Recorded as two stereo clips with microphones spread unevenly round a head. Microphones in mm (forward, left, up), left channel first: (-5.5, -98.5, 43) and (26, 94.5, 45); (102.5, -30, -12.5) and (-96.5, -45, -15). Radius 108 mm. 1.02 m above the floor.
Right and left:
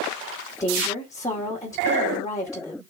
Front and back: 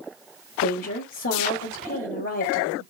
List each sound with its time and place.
0.6 s a woman speaking: 25° right, 2.5 m